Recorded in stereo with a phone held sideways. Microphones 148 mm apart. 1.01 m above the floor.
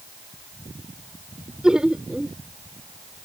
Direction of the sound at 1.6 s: 5° right (ahead or behind).